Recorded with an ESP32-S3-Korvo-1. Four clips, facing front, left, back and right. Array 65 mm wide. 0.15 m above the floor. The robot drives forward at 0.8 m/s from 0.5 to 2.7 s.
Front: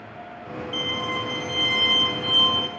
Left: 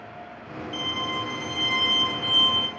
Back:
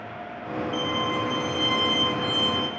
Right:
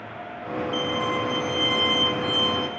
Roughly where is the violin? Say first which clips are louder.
Right 3 dB, back 1 dB; ahead.